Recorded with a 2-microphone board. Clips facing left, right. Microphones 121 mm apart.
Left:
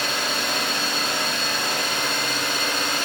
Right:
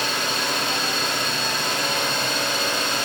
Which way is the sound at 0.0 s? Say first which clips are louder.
Right 1 dB; 80° right.